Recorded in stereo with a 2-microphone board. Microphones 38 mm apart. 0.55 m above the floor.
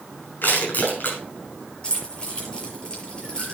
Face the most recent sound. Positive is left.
turn(degrees=25)  # may be behind; listen again after turning